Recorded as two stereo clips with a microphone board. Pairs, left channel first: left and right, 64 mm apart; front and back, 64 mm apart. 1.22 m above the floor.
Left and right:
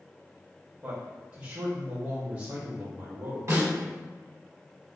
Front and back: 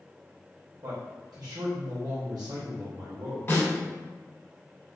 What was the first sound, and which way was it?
A man speaking, 160° right.